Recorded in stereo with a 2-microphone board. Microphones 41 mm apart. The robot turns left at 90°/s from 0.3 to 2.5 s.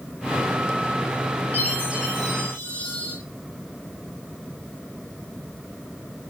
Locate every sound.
1.5 s a chime: 125° right, 9.5 m; by 3.1 s 150° left, 9.5 m